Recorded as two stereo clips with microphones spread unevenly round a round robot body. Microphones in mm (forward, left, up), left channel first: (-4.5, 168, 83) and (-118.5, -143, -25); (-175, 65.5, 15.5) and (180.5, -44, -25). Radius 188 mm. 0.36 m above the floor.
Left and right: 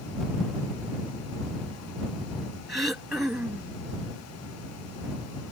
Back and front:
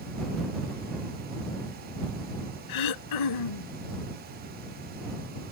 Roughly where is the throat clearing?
Behind.